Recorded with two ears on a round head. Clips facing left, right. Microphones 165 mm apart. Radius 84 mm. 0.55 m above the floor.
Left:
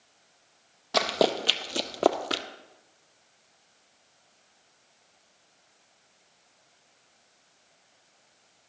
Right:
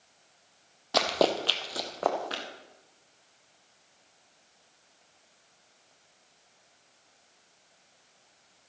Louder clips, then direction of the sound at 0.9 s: Left 1 dB; centre (ahead or behind).